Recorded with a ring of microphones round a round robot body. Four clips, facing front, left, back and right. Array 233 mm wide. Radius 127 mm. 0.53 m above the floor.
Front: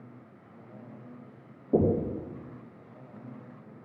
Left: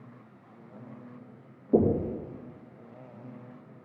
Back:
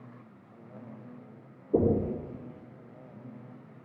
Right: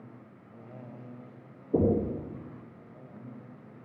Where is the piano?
No piano in this recording.